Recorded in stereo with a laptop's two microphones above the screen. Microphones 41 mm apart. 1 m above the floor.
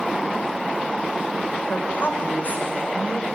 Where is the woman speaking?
50° left (ahead or behind), 4.5 m; by 3.3 s 45° left (ahead or behind), 5.5 m.